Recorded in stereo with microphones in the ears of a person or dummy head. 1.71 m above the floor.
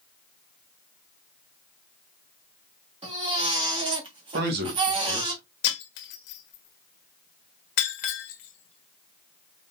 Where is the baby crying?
35° right (ahead or behind), 1.5 m.